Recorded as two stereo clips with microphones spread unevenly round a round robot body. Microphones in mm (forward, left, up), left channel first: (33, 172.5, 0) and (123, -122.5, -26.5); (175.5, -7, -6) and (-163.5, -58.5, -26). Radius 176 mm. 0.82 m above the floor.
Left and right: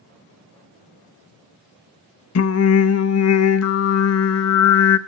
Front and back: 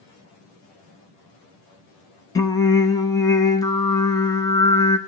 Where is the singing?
90° left, 0.9 m.